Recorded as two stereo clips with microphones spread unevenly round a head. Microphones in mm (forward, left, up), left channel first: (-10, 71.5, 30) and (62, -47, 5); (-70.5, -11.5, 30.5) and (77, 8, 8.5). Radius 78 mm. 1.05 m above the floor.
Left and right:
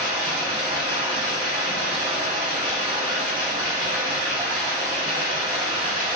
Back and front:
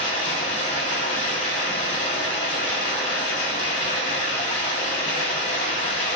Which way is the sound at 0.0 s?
120° right.